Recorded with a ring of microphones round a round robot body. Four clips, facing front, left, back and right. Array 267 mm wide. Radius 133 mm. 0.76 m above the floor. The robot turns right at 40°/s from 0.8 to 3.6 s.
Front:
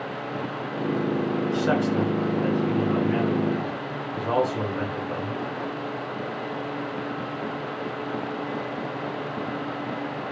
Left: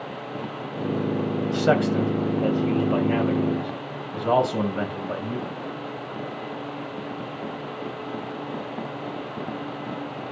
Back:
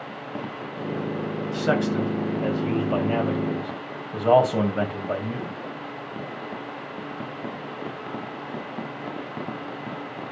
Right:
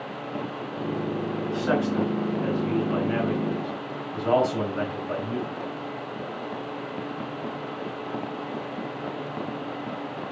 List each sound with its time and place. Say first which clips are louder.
1.5 s a man speaking: left 4 dB, back 2 dB; 85° left, 4 m; by 5.6 s 170° left, 4 m